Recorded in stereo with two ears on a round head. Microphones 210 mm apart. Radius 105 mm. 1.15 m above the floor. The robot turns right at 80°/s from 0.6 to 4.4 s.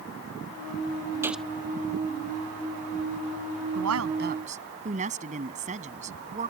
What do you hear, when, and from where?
1.2 s a gunshot: 10° right (ahead or behind); by 1.4 s 5° left (ahead or behind)
3.8 s a woman speaking: 85° right; by 6.5 s 30° right